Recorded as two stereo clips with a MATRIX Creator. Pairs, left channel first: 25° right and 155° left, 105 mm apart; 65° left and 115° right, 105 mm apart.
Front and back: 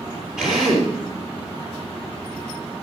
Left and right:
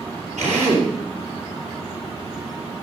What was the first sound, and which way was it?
A drill, 120° right.